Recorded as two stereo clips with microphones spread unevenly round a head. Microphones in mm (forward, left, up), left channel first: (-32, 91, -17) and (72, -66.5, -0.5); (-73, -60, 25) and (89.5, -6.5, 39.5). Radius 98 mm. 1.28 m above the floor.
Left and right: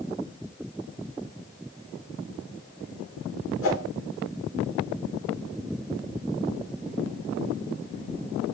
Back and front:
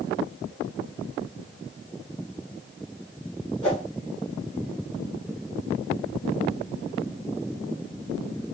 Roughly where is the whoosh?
Behind left.